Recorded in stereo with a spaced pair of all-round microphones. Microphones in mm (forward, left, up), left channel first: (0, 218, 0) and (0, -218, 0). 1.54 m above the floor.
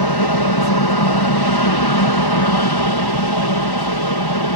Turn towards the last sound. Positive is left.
turn(degrees=60)  # may be behind; listen again after turning